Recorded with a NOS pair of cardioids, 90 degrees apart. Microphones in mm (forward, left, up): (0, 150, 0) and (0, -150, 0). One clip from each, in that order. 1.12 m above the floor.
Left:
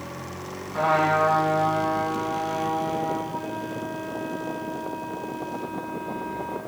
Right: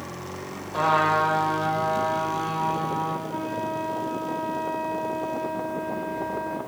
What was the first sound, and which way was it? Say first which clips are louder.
A trumpet: even; 55° right.